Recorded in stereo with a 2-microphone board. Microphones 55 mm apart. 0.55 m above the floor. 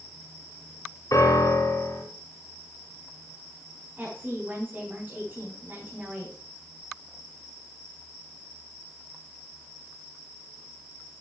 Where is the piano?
80° left, 3.5 m.